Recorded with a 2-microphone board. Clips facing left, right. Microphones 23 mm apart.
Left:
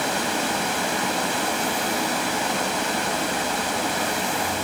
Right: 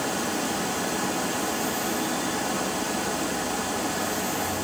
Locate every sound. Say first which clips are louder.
0.0 s running water: left 4 dB; 75° left (ahead or behind), 1.2 m